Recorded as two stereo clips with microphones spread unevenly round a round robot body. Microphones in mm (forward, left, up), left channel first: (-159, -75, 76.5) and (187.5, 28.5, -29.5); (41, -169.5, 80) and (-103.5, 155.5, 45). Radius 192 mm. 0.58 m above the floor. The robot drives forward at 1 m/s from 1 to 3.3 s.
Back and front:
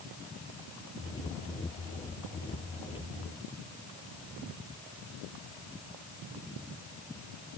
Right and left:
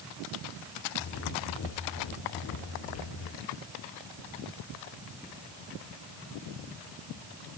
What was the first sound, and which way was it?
Only background noise.